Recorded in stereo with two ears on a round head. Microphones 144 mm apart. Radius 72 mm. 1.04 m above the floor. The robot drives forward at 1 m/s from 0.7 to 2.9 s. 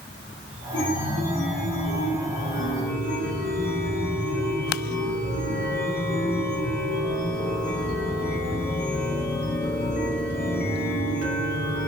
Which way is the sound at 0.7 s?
80° left.